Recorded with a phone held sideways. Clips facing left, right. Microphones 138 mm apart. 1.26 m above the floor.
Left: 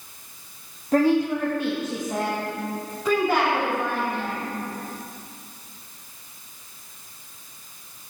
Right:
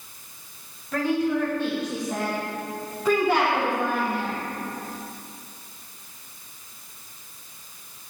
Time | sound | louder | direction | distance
0.9 | a woman speaking | left 4 dB | 40° left (ahead or behind) | 1.3 m